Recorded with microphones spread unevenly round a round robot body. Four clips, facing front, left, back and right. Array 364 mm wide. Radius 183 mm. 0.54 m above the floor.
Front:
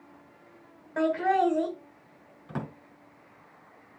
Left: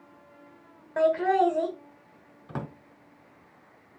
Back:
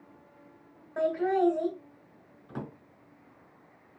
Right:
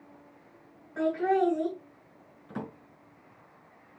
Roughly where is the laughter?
Ahead left.